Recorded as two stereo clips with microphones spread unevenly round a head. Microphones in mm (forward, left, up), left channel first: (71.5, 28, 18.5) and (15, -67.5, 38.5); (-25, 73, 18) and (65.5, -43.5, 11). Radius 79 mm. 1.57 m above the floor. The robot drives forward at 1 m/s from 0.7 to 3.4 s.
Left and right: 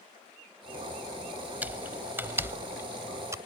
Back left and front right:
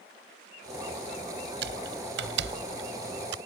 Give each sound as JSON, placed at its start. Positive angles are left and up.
{"t": 1.6, "sound": "typing on a keyboard", "azimuth_deg": -45}